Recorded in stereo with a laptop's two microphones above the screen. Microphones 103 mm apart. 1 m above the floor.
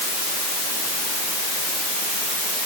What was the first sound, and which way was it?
Only background noise.